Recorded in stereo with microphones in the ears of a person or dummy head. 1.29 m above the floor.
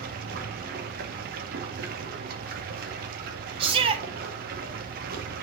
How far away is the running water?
About 2.0 m.